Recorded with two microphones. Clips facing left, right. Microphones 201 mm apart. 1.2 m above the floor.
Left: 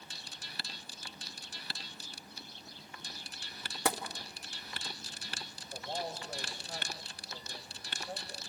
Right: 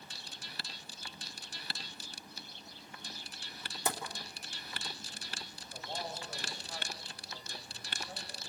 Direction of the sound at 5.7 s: 55° left (ahead or behind).